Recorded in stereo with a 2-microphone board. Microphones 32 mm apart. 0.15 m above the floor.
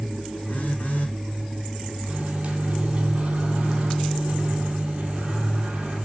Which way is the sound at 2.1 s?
40° right (ahead or behind).